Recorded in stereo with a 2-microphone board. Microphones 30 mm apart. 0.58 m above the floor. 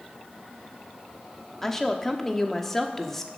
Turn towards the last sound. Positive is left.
turn(degrees=10)  # may be behind; listen again after turning